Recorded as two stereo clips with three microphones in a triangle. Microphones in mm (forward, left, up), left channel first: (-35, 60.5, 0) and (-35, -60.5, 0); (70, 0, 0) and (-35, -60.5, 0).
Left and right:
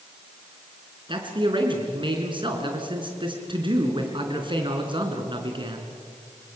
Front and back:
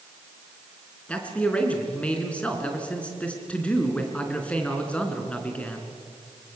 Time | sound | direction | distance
1.1 | a man speaking | 50° right | 4 m